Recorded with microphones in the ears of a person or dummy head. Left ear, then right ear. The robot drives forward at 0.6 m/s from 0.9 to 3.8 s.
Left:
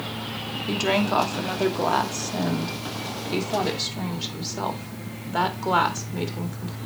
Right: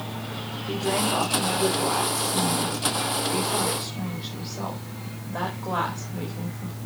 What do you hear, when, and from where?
0.7 s a woman speaking: 70° left (ahead or behind), 2 m; by 6.8 s 65° left (ahead or behind), 2.5 m